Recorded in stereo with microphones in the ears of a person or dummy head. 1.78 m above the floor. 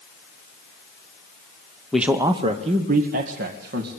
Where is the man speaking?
Centre (ahead or behind), 1.1 m; by 3.9 s 55° right (ahead or behind), 2.5 m.